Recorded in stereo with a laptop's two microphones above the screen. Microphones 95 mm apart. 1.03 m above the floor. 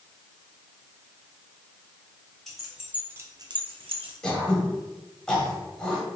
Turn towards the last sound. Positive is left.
turn(degrees=5)  # may be behind; listen again after turning